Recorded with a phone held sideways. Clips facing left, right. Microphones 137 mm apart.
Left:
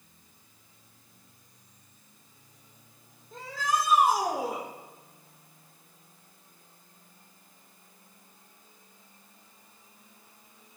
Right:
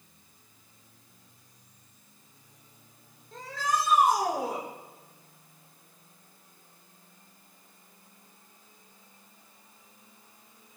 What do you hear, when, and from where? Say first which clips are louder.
3.3 s a shout: even; 10° left (ahead or behind), 4 m